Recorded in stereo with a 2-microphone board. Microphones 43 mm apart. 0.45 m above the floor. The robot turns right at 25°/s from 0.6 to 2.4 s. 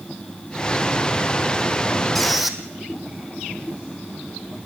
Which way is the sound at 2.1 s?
5° left (ahead or behind).